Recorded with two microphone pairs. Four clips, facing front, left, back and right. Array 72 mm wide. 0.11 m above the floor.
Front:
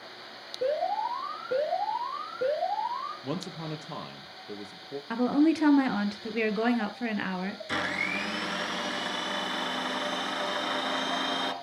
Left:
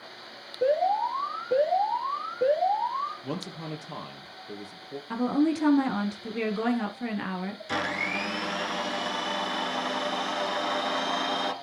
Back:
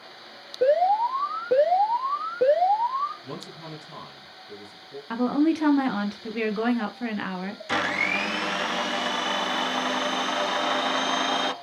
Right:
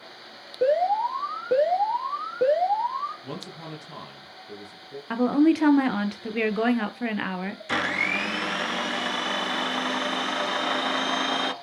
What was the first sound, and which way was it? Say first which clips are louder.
An alarm: right 2 dB, back 8 dB; 135° right.